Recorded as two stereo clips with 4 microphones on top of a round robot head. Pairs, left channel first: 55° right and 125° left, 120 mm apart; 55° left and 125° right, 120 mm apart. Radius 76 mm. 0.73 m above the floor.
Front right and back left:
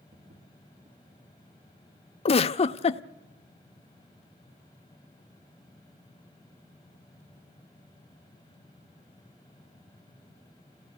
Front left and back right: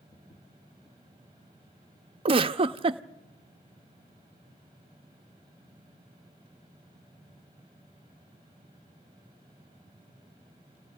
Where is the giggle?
85° right, 0.6 m.